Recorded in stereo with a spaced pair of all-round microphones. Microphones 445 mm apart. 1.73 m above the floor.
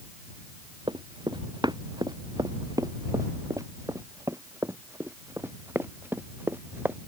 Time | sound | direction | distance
0.9 | running footsteps | 10° right (ahead or behind) | ?